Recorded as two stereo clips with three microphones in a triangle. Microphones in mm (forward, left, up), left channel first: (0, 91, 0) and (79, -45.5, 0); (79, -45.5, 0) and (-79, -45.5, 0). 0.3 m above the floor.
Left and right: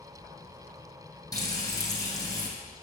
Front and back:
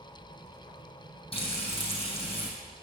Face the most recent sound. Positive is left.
turn(degrees=55)